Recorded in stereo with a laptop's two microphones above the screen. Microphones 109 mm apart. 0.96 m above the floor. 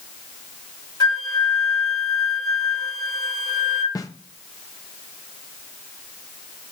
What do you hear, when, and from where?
1.0 s a flute: 40° left (ahead or behind), 2 m
4.0 s a snare drum: 35° left (ahead or behind), 0.9 m